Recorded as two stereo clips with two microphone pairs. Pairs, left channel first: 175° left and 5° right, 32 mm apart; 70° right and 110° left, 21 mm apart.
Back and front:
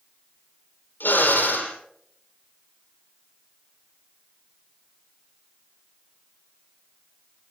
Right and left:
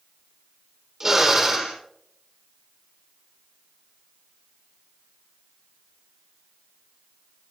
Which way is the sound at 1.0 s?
Straight behind.